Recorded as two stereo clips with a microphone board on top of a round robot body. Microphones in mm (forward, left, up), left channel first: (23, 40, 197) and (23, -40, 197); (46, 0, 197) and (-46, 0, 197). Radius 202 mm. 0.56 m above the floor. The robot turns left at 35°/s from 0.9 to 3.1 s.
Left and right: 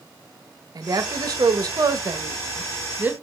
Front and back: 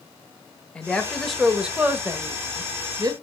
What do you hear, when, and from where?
0.8 s a woman speaking: 75° right, 0.8 m; by 3.1 s 150° right, 0.8 m